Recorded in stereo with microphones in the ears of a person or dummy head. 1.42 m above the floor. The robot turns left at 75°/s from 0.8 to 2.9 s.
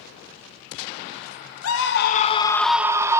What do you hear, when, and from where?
1.6 s a scream: 80° left, 1.5 m; by 3.2 s 15° right, 1.5 m